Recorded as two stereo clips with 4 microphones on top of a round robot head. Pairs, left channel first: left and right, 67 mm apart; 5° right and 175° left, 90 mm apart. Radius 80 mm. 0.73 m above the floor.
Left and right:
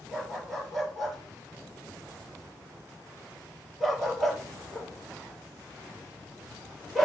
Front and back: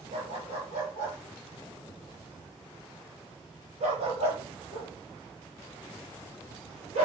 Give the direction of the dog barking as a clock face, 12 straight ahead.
6 o'clock.